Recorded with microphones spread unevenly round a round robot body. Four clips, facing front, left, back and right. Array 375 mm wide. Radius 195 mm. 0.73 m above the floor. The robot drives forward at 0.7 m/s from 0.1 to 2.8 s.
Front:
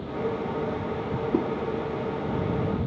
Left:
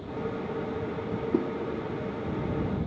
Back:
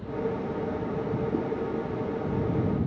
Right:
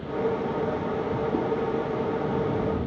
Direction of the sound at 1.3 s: 25° left.